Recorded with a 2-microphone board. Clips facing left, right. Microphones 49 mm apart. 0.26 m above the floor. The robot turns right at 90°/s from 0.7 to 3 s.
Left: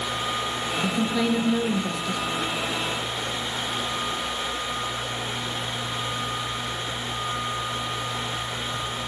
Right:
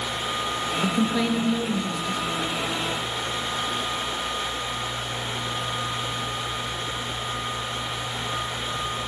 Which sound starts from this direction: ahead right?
A woman speaking, at 0.8 s.